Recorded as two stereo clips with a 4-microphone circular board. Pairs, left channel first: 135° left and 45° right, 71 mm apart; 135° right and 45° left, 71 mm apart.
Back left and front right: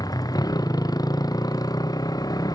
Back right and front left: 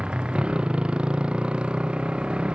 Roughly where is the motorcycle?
Behind left.